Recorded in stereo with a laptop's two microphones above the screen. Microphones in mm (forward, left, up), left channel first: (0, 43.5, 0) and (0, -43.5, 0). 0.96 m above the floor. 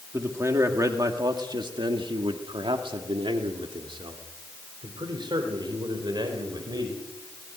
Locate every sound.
0.1 s a man speaking: 30° right (ahead or behind), 2 m; by 7.0 s 50° right (ahead or behind), 4.5 m